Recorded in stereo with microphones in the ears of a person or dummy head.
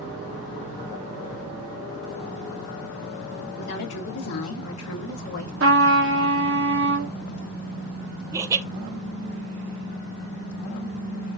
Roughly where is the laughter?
Centre.